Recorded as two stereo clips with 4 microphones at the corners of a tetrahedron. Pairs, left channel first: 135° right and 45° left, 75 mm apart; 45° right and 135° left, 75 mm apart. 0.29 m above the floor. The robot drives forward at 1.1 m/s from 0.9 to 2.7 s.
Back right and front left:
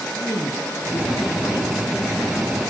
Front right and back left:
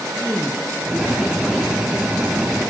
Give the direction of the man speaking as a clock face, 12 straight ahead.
4 o'clock.